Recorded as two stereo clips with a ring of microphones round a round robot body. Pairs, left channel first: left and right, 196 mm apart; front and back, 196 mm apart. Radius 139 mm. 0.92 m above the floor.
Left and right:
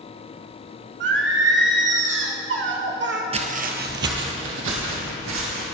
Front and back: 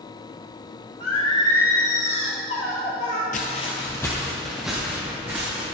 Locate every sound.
1.0 s singing: 65° right, 1.4 m
3.3 s footsteps: 40° right, 1.2 m; by 5.6 s 100° right, 3.5 m